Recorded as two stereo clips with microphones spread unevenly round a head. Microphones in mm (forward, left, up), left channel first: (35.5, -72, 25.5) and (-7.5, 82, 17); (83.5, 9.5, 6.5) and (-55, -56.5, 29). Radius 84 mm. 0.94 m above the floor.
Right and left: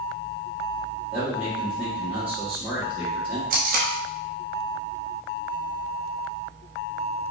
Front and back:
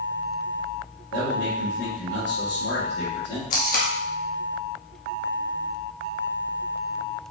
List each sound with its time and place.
1.1 s a man speaking: 25° left, 1.6 m
3.5 s tape being pulled: 70° left, 0.8 m